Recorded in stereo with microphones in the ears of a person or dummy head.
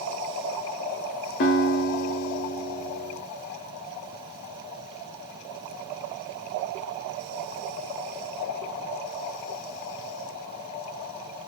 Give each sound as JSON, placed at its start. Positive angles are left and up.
{"t": 1.4, "sound": "a guitar", "side_deg": 35, "distance_m": 0.9}